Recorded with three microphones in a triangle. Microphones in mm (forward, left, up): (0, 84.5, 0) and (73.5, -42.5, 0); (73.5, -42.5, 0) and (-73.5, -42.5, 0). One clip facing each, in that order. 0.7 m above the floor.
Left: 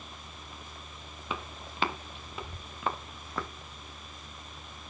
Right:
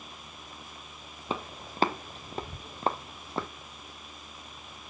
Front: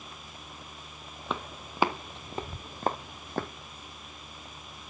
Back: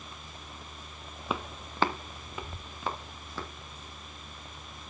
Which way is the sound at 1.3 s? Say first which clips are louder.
Right 4 dB, back 1 dB; 95° right.